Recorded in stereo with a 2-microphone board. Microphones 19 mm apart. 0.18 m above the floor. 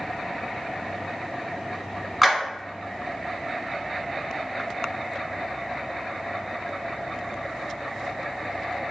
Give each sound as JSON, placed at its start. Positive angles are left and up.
{"t": 2.2, "sound": "a clap", "side_deg": 0, "distance_m": 1.5}